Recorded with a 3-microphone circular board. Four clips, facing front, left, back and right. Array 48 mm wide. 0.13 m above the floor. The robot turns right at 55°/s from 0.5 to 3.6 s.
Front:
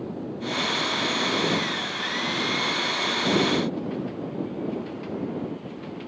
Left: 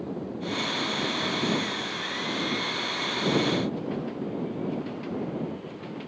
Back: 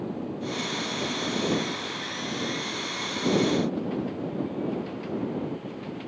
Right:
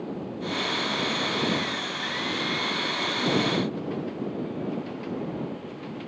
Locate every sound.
Only background noise.